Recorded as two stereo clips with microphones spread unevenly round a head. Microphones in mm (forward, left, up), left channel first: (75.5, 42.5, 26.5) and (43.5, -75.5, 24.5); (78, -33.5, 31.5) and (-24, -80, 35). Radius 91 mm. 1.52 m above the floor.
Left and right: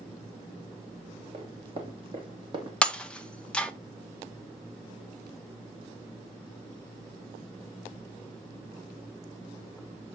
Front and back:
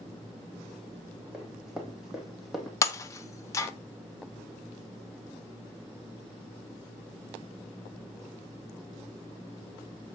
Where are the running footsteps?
75° right, 3 m; by 2.7 s 70° right, 2.5 m.